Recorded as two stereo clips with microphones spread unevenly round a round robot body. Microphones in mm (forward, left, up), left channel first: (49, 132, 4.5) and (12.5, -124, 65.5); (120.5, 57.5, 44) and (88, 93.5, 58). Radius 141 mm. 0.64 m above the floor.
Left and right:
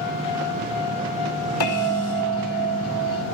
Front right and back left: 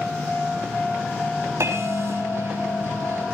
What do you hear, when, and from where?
1.6 s a bell: 110° left, 5 m